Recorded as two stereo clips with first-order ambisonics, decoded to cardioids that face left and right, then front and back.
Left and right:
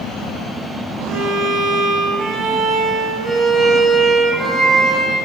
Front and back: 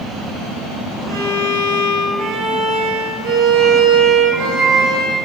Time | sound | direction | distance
1.1 | a violin | 155° right | 1.0 m